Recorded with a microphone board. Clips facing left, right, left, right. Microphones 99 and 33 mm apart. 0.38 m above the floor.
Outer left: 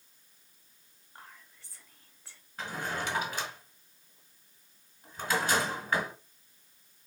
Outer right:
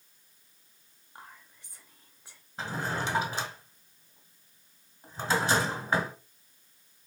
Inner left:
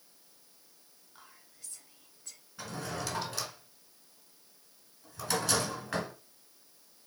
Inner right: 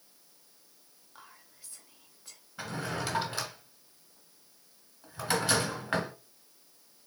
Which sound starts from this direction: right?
A drawer, at 2.6 s.